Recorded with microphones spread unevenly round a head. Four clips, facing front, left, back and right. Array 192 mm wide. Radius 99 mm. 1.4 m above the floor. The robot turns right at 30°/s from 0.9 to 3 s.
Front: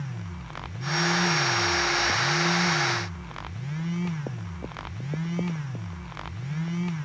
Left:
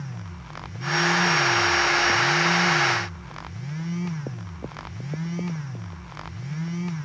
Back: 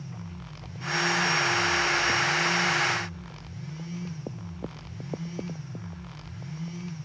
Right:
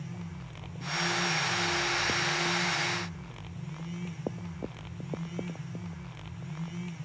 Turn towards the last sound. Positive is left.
No sound to turn to.